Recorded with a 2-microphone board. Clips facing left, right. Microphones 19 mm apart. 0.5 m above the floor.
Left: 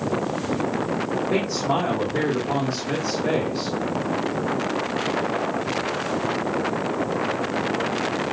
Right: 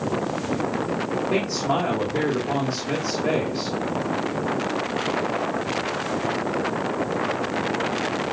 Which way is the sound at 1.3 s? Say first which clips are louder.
Even; 5° right (ahead or behind).